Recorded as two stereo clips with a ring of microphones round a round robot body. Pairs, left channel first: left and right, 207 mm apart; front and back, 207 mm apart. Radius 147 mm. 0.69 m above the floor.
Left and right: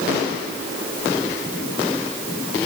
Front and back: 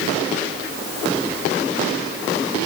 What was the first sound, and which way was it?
Only background noise.